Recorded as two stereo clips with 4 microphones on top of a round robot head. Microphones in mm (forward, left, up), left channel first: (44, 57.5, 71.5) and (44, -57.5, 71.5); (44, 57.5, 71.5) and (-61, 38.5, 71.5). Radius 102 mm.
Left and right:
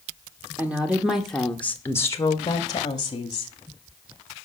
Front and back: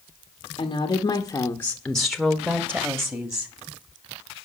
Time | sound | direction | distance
0.6 | a woman speaking | 15° right | 1.6 m